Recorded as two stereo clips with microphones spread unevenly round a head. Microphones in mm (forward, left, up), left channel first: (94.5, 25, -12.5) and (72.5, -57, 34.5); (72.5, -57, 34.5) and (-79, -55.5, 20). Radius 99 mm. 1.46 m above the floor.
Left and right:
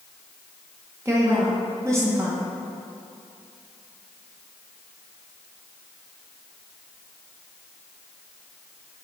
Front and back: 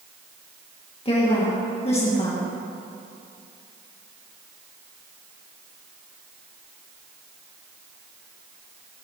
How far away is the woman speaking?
About 2 m.